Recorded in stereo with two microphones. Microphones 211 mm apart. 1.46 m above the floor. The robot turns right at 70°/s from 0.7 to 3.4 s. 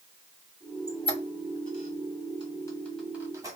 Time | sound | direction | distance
0.9 | a squeak | 20° left (ahead or behind) | 1.5 m